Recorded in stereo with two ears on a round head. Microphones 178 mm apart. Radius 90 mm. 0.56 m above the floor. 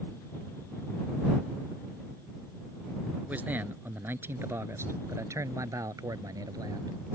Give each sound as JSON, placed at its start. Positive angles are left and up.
{"t": 3.3, "sound": "a man speaking", "side_deg": -10}